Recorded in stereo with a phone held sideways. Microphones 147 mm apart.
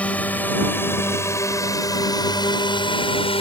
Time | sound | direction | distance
0.0 | a drone | 10° left (ahead or behind) | ?